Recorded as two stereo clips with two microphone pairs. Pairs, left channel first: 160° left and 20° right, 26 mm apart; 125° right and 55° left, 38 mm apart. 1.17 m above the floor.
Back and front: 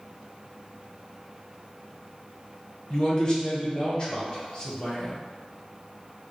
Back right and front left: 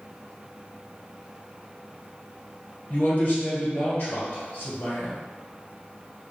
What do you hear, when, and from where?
2.9 s a man speaking: 150° right, 1.1 m